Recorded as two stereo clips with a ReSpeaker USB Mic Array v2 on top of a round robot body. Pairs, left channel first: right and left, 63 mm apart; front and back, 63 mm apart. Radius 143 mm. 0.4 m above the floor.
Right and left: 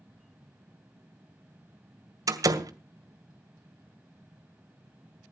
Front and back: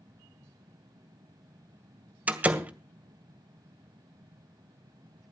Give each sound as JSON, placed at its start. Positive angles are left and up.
{"t": 2.3, "sound": "a door slam", "azimuth_deg": 115, "distance_m": 2.0}